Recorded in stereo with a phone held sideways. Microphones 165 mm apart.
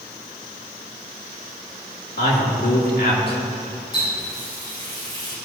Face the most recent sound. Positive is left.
turn(degrees=30)  # may be behind; listen again after turning